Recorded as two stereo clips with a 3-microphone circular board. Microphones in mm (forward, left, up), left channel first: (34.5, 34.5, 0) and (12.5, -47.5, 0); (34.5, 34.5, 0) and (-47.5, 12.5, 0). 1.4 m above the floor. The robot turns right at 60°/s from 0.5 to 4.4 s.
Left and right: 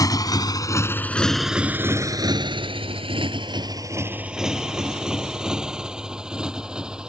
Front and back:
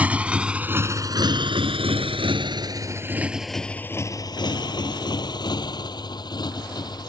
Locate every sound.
0.0 s a motorcycle: 120° left; by 7.1 s 25° right